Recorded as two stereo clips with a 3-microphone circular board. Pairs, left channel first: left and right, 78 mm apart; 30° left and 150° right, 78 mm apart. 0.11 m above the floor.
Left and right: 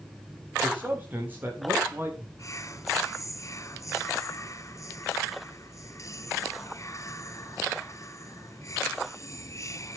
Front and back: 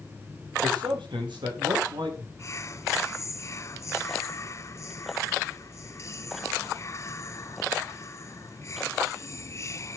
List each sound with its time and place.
0.6 s a man speaking: 160° right, 8.5 m; by 2.3 s 155° right, 8 m
2.4 s whispering: 65° left, 1.7 m